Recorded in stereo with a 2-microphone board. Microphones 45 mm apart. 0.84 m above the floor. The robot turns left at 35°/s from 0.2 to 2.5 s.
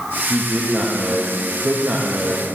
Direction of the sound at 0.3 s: 30° right.